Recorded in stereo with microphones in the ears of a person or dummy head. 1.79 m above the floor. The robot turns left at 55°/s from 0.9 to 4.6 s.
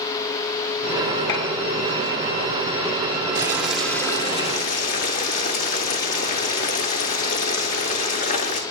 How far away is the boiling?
About 0.9 m.